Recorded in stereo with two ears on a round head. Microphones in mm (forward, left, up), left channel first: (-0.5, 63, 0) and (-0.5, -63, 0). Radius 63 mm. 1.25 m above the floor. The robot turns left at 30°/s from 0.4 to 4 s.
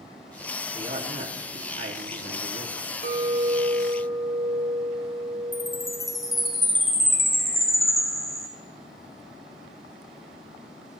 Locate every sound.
0.7 s a man speaking: 40° right, 2.0 m; by 2.8 s 100° right, 2.0 m
3.0 s a clink: 75° right (ahead or behind), 2.5 m; by 6.5 s 70° right (ahead or behind), 2.5 m
5.5 s a chime: centre (ahead or behind), 2 m